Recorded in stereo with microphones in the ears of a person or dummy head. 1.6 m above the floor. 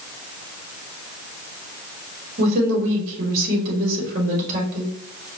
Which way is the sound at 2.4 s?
35° right (ahead or behind).